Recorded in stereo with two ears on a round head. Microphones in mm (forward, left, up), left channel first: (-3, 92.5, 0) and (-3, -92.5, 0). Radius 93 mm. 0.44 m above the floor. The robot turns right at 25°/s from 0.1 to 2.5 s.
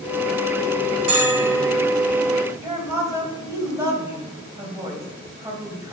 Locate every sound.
1.1 s a bell: 35° right (ahead or behind), 2.5 m; by 1.7 s 50° right (ahead or behind), 2.5 m
2.6 s a woman speaking: 20° right (ahead or behind), 2.5 m